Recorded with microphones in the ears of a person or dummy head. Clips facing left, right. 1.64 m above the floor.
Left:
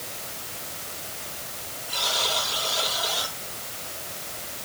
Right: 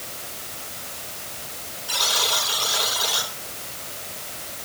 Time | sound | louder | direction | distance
1.9 | a buzzer | right 1 dB | 80° right | 7.5 m